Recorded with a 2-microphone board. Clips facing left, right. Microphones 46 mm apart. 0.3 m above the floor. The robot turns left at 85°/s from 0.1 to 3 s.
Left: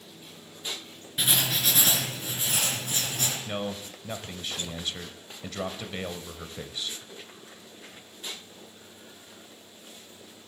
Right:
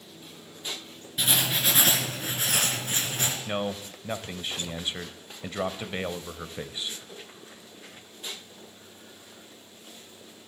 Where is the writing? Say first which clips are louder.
Right 1 dB; 10° left, 4 m; by 3.4 s 145° right, 4 m.